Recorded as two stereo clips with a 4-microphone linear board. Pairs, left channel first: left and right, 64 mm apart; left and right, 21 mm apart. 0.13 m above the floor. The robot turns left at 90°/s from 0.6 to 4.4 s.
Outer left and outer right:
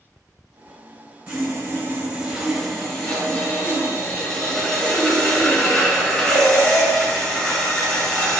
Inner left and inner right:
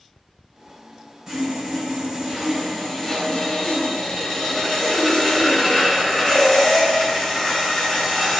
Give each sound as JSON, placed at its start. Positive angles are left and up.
{"t": 1.3, "sound": "sawing", "side_deg": -15, "distance_m": 1.7}